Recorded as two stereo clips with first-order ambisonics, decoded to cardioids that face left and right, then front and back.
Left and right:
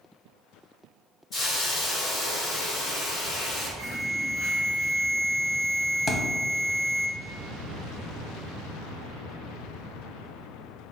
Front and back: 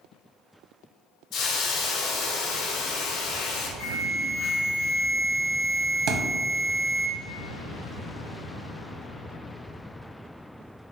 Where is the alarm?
125° left, 1.6 m.